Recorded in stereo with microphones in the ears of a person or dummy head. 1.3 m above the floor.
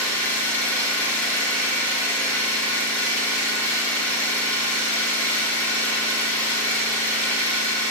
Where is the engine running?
10° left (ahead or behind), 2 m.